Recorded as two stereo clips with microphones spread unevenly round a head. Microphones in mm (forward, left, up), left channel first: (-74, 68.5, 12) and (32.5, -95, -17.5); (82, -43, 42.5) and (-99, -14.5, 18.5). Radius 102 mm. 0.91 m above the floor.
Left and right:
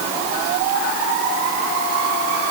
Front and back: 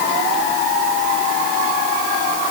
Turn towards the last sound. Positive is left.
No sound to turn to.